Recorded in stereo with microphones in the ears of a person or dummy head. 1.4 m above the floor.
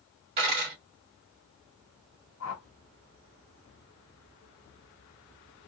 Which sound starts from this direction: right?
A dropped coin, at 0.4 s.